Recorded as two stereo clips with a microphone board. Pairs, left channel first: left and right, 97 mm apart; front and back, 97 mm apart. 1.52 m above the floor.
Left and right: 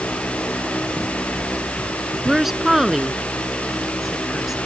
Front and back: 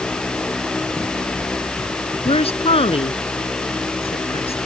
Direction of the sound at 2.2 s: 5° right.